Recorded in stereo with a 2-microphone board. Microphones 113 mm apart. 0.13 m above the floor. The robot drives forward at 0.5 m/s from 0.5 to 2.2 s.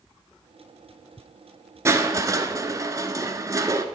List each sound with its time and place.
1.9 s crushing: 25° right (ahead or behind), 0.9 m; by 3.9 s 30° right (ahead or behind), 0.8 m